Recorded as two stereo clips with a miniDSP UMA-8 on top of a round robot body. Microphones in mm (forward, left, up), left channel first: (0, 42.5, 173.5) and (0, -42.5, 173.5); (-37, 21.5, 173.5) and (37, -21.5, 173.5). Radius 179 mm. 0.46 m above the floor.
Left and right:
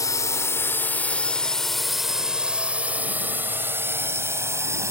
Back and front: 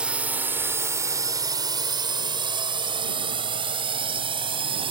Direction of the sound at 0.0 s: 45° left.